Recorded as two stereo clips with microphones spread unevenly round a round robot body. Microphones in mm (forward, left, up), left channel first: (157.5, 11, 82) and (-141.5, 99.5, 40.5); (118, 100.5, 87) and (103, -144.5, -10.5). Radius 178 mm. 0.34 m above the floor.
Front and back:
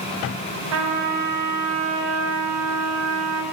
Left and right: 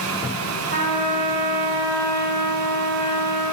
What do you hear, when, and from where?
0.7 s a trumpet: 150° right, 0.7 m